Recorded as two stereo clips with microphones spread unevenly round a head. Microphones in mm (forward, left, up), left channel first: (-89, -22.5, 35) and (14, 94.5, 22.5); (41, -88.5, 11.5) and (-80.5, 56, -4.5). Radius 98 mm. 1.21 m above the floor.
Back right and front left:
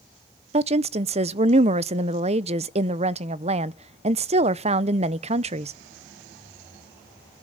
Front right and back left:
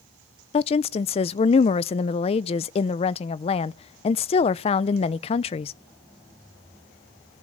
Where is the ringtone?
No ringtone in this recording.